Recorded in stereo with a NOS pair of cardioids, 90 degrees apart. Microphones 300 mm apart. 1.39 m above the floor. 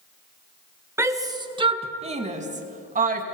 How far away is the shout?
About 1.5 m.